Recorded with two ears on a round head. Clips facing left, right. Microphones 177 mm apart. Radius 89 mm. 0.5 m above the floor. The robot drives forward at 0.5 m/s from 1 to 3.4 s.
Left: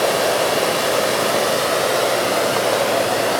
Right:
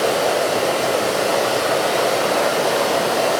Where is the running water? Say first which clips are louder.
Even; 85° left, 0.8 m; by 3.4 s 30° left (ahead or behind), 1.5 m.